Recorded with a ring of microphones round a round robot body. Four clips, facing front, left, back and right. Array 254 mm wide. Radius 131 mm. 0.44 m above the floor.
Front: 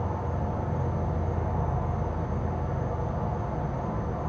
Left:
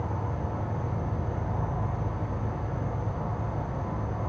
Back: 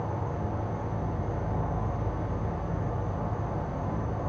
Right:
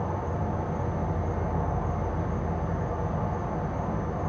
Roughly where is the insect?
Right.